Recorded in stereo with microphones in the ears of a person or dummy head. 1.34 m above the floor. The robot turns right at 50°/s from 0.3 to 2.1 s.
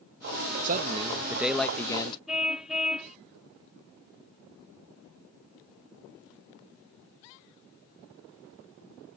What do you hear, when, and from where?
0.6 s a man speaking: 50° right; by 2.2 s 25° left
2.3 s a car horn: 5° right (ahead or behind)